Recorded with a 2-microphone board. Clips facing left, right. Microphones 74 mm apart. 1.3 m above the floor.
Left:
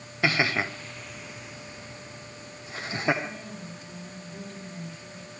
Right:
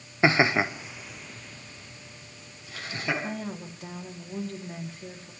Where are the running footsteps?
No running footsteps in this recording.